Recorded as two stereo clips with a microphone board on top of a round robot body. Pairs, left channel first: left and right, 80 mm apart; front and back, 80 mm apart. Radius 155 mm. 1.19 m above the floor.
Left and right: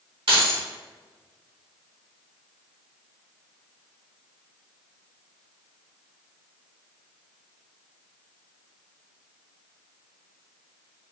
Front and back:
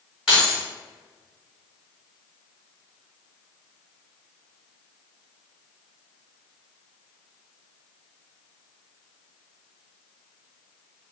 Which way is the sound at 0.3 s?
95° right.